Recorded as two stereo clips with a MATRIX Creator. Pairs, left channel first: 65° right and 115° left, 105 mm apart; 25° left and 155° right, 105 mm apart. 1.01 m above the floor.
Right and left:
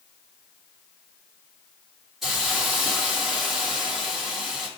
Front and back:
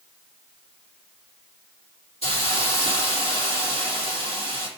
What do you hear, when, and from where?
2.2 s a hiss: 25° left, 2 m